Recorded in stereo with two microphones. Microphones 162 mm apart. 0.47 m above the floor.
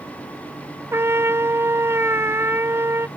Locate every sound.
0.9 s a trumpet: 15° right (ahead or behind)